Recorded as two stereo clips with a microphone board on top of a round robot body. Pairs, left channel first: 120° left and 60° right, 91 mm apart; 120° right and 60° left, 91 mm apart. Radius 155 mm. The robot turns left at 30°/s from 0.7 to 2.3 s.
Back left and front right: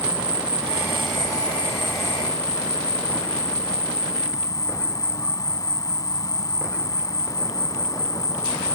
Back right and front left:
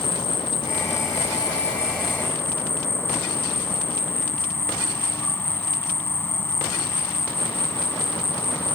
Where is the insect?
140° right; by 8.8 s 170° left.